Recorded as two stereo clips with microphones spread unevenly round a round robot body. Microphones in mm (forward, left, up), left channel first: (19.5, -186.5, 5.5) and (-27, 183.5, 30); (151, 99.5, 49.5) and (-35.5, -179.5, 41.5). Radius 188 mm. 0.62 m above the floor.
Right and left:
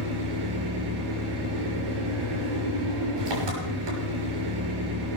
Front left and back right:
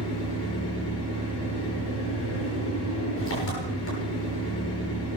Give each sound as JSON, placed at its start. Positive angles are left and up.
{"t": 0.0, "sound": "an engine running", "azimuth_deg": 110, "distance_m": 6.5}